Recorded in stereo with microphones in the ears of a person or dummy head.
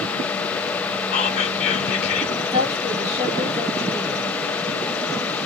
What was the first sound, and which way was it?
Whispering, 35° left (ahead or behind).